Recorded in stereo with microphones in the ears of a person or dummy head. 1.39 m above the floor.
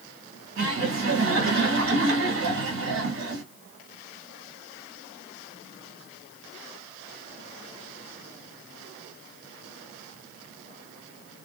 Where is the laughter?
75° right (ahead or behind), 1.9 m.